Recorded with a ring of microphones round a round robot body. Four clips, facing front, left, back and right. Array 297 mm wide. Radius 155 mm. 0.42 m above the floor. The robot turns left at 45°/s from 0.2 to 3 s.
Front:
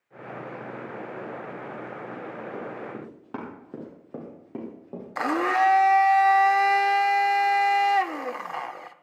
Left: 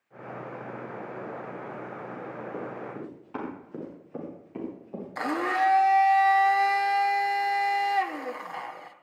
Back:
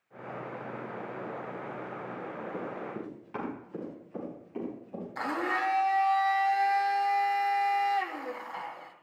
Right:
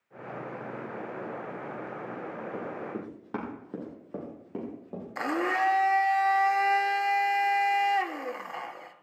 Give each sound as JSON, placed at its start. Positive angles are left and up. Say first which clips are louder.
{"t": 2.5, "sound": "running footsteps", "louder": "even, front 2 dB", "azimuth_deg": -35, "distance_m": 6.0}
{"t": 5.2, "sound": "a blender", "louder": "left 1 dB, front 9 dB", "azimuth_deg": -5, "distance_m": 1.0}